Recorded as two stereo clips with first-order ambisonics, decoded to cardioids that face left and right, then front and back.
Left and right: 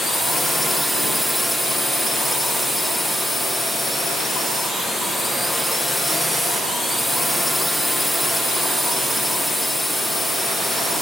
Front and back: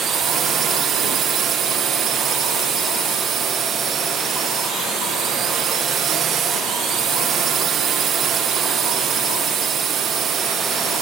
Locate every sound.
0.0 s a drone: straight behind